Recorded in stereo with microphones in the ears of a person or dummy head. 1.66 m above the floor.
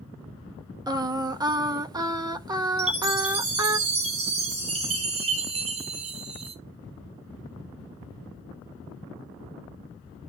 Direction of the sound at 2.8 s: 35° right (ahead or behind).